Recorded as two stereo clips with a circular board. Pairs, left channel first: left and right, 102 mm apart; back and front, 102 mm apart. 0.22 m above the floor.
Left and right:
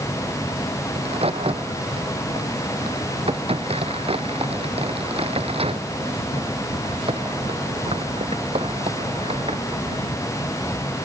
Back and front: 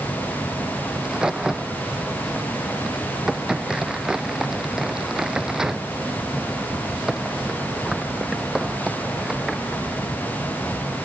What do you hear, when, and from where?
0.9 s a crack: 85° right